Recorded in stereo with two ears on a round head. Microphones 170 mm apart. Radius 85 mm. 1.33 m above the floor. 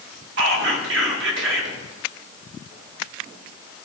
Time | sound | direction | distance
0.4 | whispering | 70° right (ahead or behind) | 1.6 m